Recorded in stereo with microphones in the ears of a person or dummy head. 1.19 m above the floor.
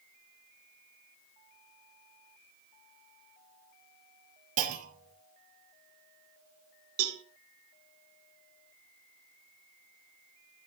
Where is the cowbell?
75° right (ahead or behind), 1.9 m.